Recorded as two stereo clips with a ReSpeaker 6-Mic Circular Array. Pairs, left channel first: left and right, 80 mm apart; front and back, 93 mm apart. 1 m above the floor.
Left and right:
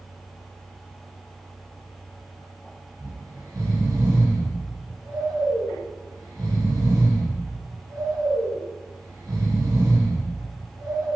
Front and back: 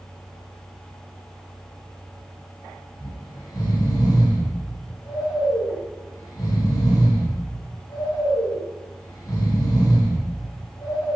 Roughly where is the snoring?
Ahead right.